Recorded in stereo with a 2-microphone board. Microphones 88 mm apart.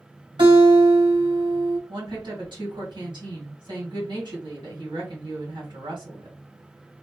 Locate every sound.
0.4 s a guitar: 70° right (ahead or behind), 2.5 m
1.9 s a woman speaking: 60° right (ahead or behind), 2.5 m